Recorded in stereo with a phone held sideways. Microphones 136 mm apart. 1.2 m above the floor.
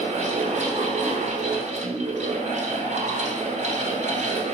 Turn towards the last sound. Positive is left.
turn(degrees=-60)  # may be behind; listen again after turning